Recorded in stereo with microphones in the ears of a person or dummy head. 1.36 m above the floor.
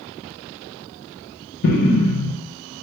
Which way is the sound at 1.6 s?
55° left (ahead or behind).